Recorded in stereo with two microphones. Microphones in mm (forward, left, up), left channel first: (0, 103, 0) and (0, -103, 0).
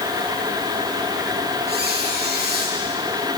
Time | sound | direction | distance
1.7 | a squeak | 55° right (ahead or behind) | 5 m